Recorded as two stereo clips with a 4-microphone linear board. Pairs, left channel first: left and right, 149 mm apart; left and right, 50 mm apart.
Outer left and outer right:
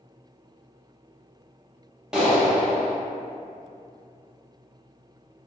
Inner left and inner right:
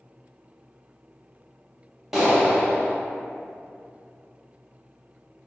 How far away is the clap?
About 0.6 m.